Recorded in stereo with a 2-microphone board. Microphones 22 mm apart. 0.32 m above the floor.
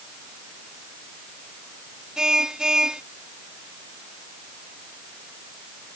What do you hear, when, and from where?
2.2 s a car horn: 30° right (ahead or behind)